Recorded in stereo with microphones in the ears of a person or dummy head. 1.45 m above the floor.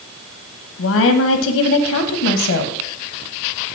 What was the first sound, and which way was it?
A woman speaking, 70° left (ahead or behind).